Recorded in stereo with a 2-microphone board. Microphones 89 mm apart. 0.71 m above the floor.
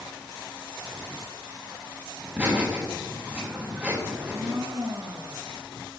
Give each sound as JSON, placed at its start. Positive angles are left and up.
{"t": 2.2, "sound": "laughter", "side_deg": -15, "distance_m": 4.5}
{"t": 4.1, "sound": "a blender", "side_deg": -45, "distance_m": 4.5}